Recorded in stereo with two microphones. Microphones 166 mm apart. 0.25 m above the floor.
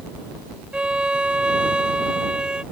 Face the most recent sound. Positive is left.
turn(degrees=-5)  # may be behind; listen again after turning